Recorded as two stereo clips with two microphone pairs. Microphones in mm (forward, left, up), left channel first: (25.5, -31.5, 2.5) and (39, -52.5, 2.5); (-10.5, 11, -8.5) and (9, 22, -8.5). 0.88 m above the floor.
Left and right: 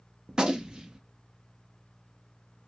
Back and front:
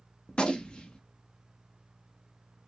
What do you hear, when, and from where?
0.3 s a gunshot: 110° right, 0.7 m